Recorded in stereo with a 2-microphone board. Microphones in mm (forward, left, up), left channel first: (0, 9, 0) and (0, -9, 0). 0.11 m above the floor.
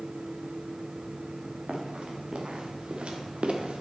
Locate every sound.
1.7 s running footsteps: 75° right (ahead or behind), 2.5 m; by 3.8 s 85° right, 1.5 m